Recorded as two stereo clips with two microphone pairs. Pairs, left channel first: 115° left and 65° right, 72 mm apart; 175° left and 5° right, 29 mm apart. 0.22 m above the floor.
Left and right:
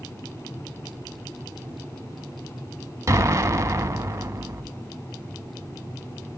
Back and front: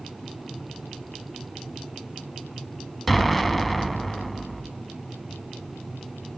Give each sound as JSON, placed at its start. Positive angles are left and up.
{"t": 3.1, "sound": "an explosion", "azimuth_deg": -100, "distance_m": 0.5}